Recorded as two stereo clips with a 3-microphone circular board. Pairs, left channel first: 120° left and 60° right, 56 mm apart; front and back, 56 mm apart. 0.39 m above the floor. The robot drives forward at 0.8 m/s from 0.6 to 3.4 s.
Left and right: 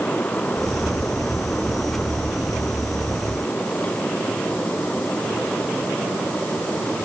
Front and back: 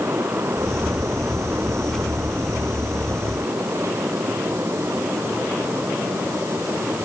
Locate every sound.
Only background noise.